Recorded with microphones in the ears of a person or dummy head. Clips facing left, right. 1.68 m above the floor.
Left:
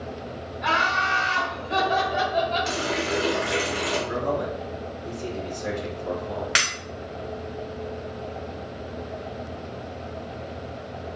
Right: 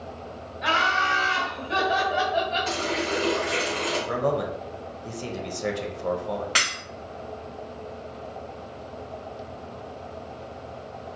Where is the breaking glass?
10° left (ahead or behind), 0.9 m.